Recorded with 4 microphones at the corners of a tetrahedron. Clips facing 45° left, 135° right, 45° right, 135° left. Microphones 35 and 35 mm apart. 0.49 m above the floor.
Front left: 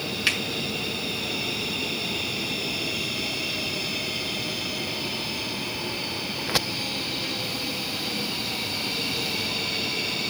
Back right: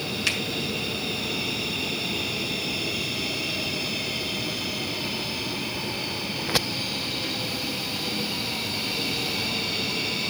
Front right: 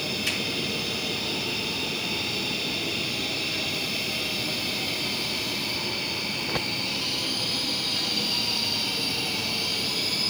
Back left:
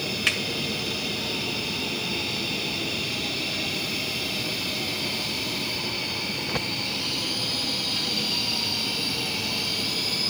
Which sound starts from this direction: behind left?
A finger snap, at 0.3 s.